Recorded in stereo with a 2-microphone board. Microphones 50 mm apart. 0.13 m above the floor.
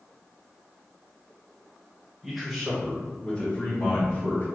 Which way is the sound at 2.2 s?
5° right (ahead or behind).